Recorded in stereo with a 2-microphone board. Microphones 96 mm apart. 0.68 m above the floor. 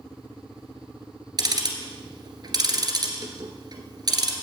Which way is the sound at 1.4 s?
45° right (ahead or behind).